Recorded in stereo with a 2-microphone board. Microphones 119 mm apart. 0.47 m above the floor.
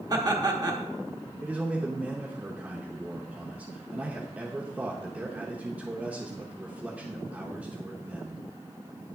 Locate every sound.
0.1 s laughter: 30° right (ahead or behind), 0.9 m
1.4 s a man speaking: 10° right (ahead or behind), 0.8 m